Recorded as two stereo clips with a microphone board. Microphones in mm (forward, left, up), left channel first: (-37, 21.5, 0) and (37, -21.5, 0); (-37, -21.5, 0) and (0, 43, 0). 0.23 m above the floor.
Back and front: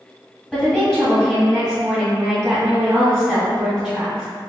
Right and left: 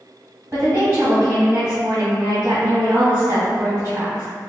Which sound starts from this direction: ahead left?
A woman speaking, at 0.5 s.